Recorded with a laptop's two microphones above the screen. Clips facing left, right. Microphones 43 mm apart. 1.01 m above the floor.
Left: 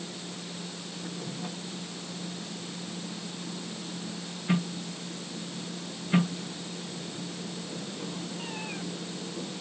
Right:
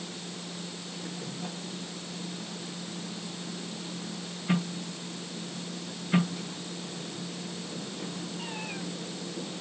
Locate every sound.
Only background noise.